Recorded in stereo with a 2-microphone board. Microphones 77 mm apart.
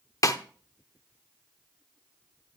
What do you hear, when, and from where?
0.2 s a snare drum: 45° left (ahead or behind), 0.7 m